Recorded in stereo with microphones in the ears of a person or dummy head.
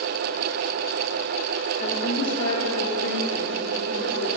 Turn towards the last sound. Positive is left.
turn(degrees=75)  # may be behind; listen again after turning